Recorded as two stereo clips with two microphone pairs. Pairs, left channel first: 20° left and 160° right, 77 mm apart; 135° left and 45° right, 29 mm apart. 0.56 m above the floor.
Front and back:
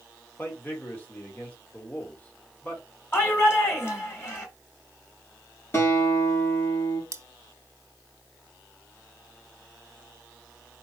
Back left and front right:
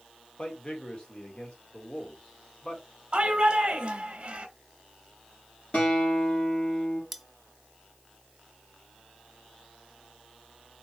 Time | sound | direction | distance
0.4 | a man speaking | 85° left | 1.6 m
3.1 | a shout | 20° right | 1.4 m
5.7 | a guitar | 80° left | 3 m
7.1 | cutlery clinking | 130° right | 0.5 m